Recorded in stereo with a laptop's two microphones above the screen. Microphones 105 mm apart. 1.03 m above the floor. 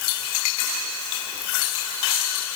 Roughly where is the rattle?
No rattle in this recording.